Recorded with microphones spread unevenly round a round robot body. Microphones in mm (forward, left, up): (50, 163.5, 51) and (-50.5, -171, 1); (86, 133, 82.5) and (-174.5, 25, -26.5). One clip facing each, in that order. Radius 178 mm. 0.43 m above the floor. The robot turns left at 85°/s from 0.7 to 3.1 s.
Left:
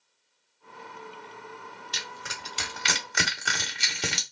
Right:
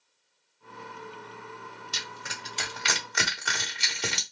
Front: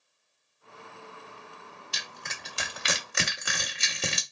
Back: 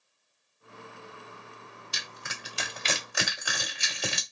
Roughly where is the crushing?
Behind.